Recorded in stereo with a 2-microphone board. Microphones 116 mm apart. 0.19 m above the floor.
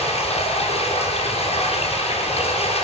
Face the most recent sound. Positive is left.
turn(degrees=60)  # may be behind; listen again after turning